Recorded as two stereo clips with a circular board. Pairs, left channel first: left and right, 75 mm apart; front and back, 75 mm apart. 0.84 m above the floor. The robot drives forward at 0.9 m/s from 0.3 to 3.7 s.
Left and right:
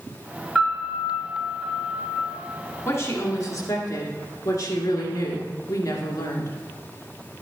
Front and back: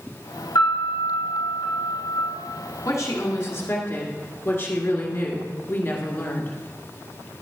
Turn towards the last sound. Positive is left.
turn(degrees=60)